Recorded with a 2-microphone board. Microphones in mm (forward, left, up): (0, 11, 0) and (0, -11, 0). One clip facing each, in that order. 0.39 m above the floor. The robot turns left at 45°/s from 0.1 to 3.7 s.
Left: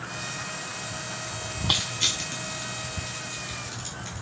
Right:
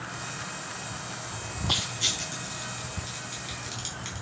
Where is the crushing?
45° left (ahead or behind), 4 m; by 4.2 s 40° right (ahead or behind), 4 m.